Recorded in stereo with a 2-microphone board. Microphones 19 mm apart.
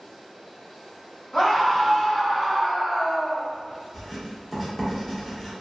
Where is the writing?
Centre (ahead or behind), 0.8 m.